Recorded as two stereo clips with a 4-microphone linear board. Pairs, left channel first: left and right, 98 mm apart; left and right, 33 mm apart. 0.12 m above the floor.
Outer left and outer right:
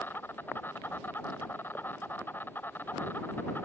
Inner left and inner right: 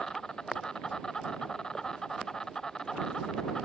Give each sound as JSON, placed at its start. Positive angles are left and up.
{"t": 0.0, "sound": "an insect", "side_deg": 20}